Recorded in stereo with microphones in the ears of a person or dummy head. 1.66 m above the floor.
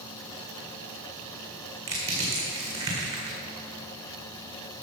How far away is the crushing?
About 2 m.